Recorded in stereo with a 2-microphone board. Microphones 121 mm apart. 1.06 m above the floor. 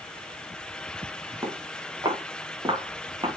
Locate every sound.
1.4 s footsteps: 30° right (ahead or behind), 6 m; by 3.3 s 40° right (ahead or behind), 5.5 m